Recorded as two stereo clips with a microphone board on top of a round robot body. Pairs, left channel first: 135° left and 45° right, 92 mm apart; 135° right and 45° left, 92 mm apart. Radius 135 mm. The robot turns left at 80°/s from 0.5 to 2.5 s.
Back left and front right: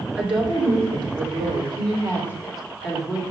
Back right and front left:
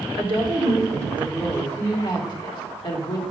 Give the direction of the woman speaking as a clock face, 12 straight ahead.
11 o'clock.